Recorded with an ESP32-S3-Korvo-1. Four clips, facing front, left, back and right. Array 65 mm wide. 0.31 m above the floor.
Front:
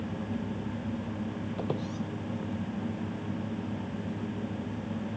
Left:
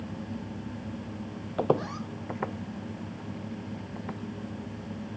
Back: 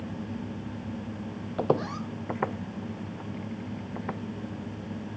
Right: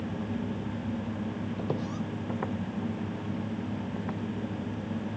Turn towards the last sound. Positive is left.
turn(degrees=180)